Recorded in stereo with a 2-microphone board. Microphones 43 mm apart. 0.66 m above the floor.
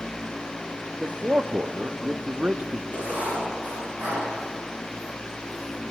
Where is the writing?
50° right (ahead or behind), 7 m.